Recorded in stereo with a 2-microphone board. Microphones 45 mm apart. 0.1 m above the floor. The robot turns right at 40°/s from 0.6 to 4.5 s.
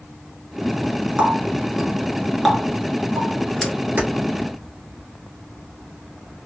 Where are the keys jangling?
45° right (ahead or behind), 1.1 m.